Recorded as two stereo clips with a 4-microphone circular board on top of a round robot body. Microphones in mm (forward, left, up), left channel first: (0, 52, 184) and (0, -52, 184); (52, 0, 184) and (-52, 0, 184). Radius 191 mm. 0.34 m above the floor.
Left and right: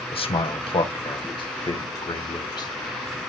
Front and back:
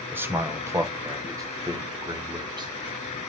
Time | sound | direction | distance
0.1 | a man speaking | 110° left | 2.5 m